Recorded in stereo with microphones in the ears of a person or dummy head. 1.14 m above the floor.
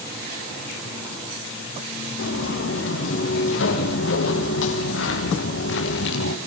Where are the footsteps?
80° left, 8 m; by 6.4 s 70° left (ahead or behind), 5 m.